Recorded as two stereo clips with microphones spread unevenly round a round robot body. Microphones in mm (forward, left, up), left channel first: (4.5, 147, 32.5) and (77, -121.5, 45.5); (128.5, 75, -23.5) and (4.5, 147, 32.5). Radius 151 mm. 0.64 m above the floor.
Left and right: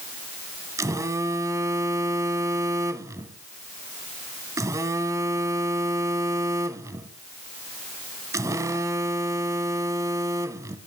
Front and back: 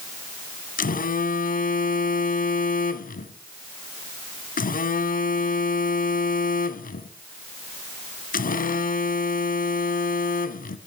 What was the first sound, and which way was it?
A phone buzzing, 5° left.